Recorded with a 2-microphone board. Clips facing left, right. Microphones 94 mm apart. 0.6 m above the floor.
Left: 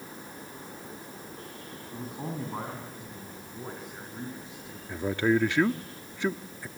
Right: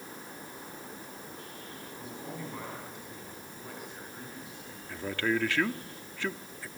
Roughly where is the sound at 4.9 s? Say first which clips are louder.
Left 5 dB; centre.